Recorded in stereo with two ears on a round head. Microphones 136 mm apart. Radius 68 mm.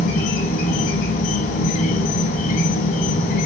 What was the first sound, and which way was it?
An insect, 60° left (ahead or behind).